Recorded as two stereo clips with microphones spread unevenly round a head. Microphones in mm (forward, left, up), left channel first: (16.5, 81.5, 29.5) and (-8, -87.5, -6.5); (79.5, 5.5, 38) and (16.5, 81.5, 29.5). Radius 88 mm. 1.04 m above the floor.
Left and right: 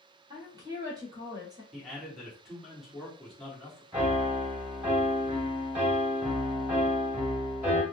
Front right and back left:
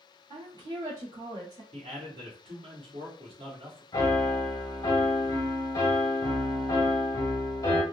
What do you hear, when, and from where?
0.3 s a woman speaking: 170° right, 1.5 m
1.7 s a man speaking: 175° left, 1.4 m
3.9 s a piano: 10° right, 1.0 m